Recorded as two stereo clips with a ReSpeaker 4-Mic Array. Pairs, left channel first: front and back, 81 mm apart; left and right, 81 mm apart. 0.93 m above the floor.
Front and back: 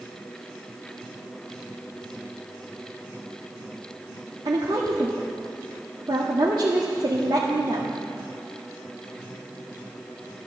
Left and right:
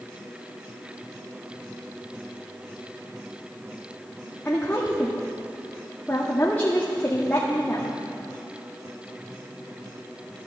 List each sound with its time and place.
4.5 s a woman speaking: 160° left, 1.5 m